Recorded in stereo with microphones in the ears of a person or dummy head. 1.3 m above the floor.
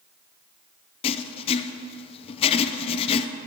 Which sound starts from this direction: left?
Writing, at 1.0 s.